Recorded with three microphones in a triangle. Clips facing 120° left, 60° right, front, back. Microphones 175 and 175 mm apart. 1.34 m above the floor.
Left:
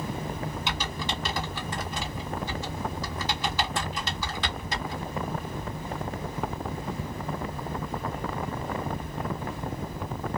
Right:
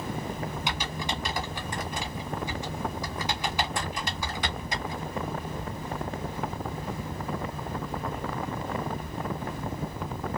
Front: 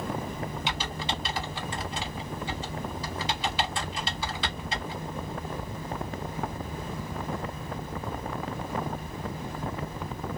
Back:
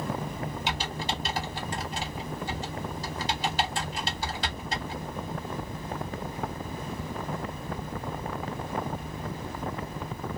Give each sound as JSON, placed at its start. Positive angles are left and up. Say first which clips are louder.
{"t": 0.7, "sound": "typing on a keyboard", "louder": "even, back 1 dB", "azimuth_deg": -135, "distance_m": 1.7}